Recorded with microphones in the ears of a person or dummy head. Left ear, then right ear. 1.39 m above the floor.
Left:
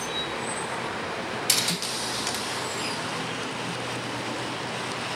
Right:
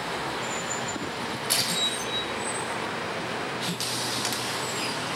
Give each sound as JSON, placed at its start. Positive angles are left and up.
{"t": 1.5, "sound": "a camera shutter", "side_deg": 75, "distance_m": 2.0}